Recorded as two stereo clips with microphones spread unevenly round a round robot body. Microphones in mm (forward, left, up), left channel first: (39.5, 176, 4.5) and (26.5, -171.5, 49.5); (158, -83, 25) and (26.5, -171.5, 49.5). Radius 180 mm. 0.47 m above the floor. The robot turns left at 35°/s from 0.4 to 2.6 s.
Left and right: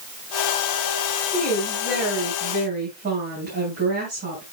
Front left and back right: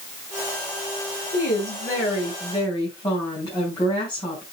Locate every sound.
1.3 s a woman speaking: 15° left, 5 m; by 4.4 s 30° right, 5 m